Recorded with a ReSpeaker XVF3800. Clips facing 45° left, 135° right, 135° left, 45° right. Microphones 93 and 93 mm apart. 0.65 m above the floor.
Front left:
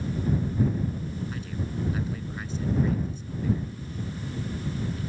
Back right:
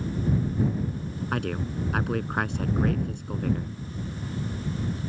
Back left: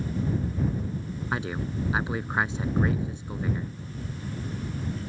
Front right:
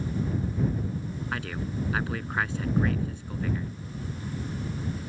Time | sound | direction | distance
1.3 | a man speaking | 155° right | ?